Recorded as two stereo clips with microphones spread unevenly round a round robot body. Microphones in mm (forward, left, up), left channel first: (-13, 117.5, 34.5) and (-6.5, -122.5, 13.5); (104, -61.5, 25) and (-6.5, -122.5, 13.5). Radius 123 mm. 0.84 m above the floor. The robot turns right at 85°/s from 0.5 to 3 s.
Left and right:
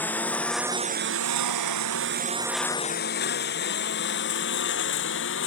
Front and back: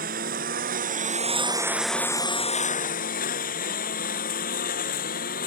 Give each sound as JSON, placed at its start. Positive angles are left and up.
{"t": 0.0, "sound": "a lawn mower", "azimuth_deg": 175}